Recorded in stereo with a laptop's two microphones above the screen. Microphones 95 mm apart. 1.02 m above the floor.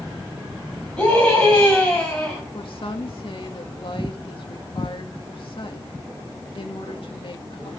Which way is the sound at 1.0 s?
10° left (ahead or behind).